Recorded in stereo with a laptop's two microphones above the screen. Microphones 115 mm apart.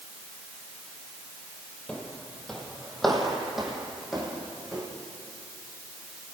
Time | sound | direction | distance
1.9 | footsteps | 10° left (ahead or behind) | 2 m